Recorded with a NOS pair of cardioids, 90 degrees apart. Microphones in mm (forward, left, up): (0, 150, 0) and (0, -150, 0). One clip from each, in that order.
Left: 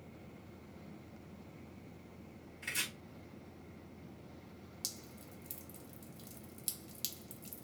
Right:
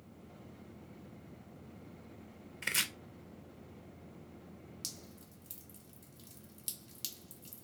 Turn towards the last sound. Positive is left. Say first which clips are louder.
# left 1 dB
turn(degrees=5)